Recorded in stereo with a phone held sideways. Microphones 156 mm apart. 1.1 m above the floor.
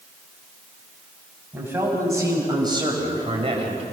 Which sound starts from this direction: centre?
A man speaking, at 1.5 s.